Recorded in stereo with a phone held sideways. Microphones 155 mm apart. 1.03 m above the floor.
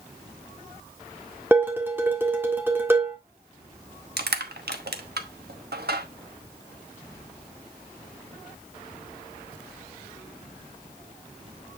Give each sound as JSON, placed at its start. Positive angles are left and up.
{"t": 1.5, "sound": "dishes clattering", "side_deg": -15, "distance_m": 1.7}
{"t": 4.2, "sound": "crushing", "side_deg": -85, "distance_m": 1.0}